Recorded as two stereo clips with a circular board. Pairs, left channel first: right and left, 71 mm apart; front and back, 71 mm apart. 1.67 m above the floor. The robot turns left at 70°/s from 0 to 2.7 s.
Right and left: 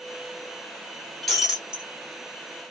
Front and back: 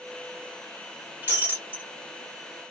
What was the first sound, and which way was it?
Breaking glass, 175° right.